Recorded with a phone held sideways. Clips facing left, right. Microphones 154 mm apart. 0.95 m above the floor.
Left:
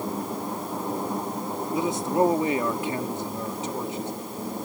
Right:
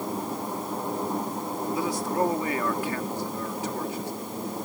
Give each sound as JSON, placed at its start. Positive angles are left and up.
{"t": 1.7, "sound": "a man speaking", "side_deg": 20}